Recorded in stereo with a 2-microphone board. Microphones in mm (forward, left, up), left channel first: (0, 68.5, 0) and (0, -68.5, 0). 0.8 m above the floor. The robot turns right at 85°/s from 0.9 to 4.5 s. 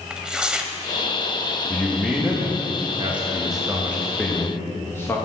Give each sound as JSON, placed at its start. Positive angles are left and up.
{"t": 0.1, "sound": "tearing paper", "side_deg": -5, "distance_m": 0.7}
{"t": 1.7, "sound": "a man speaking", "azimuth_deg": 155, "distance_m": 1.0}